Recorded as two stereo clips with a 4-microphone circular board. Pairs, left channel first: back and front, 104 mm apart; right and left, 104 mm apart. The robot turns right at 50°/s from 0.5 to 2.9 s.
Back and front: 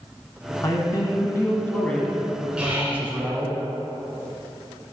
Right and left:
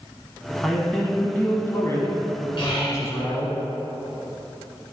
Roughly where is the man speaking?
Behind.